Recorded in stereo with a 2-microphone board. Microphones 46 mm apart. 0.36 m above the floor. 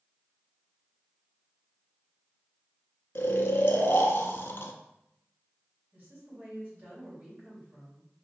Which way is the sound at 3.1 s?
60° left (ahead or behind).